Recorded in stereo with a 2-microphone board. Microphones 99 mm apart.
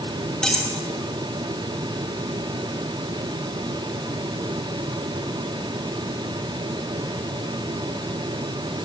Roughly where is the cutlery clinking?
Centre.